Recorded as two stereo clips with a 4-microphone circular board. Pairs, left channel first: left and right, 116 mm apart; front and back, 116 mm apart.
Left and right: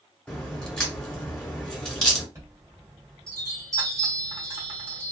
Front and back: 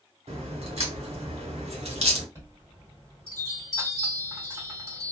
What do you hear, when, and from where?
0.3 s a crack: 170° left, 1.1 m
2.4 s a chime: 135° right, 1.7 m